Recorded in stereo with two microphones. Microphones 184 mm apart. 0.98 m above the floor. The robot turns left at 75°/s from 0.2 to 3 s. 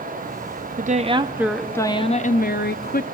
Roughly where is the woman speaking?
Behind right.